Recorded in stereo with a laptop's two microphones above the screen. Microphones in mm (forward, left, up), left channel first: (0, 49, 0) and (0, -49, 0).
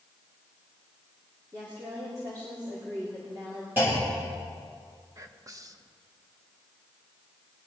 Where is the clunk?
20° right (ahead or behind), 3.5 m.